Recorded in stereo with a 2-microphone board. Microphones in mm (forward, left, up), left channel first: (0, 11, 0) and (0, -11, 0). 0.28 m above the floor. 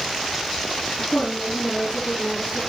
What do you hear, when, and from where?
1.0 s a woman speaking: 70° left (ahead or behind), 7 m